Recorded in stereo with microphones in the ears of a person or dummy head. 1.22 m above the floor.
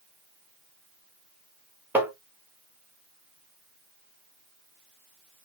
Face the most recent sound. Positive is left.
turn(degrees=-10)  # may be behind; listen again after turning